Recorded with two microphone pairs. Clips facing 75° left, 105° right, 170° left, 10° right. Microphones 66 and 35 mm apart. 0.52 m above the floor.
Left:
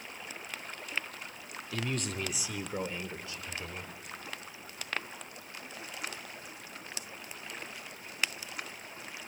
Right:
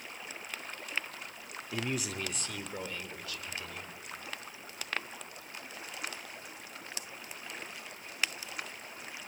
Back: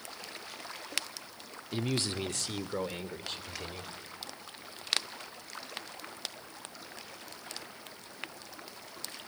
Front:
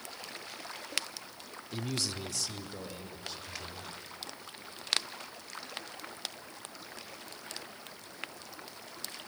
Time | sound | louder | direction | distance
1.7 | a man speaking | even, back 4 dB | 160° right | 0.7 m